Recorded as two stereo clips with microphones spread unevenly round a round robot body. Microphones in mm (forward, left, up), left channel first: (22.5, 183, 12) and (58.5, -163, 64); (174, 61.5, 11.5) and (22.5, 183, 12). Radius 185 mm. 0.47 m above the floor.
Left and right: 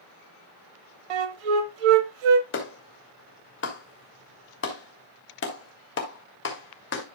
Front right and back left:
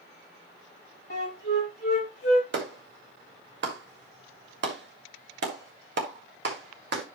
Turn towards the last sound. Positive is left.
turn(degrees=140)